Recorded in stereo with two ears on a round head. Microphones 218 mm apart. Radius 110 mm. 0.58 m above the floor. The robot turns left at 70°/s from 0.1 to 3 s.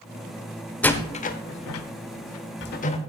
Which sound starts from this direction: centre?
A door slam, at 0.8 s.